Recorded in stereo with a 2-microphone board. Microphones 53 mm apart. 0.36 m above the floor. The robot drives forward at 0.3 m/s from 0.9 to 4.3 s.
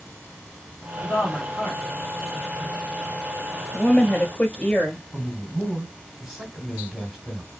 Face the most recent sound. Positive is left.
turn(degrees=-10)  # may be behind; listen again after turning